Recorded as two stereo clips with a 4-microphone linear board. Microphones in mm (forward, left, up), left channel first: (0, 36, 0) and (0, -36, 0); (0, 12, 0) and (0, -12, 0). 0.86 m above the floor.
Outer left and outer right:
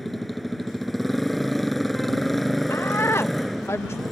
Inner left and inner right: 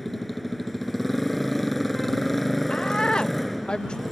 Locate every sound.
0.0 s a motorcycle: centre (ahead or behind)
2.7 s a woman speaking: 35° left (ahead or behind)